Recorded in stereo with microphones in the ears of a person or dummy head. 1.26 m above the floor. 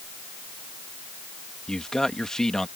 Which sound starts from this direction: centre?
A man speaking, at 1.7 s.